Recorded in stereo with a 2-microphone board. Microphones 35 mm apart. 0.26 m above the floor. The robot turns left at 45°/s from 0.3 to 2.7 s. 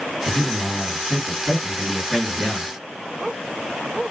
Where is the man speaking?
75° right, 2 m; by 2.7 s straight behind, 2 m.